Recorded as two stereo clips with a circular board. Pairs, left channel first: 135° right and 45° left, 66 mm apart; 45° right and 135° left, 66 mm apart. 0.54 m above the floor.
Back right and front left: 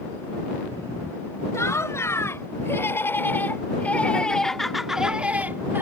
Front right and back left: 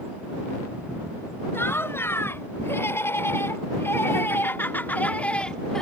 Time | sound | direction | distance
1.5 | laughter | 95° right | ?